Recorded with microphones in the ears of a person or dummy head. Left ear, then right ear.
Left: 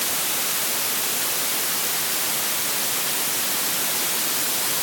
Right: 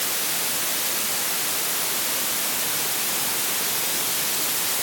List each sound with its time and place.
Only background noise.